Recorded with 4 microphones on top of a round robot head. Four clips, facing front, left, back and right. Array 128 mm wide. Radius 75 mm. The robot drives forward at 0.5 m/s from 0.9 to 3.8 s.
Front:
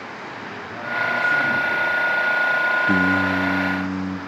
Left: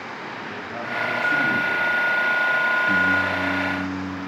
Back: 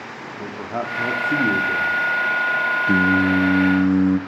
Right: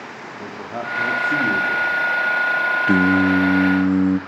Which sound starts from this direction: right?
Singing, at 2.9 s.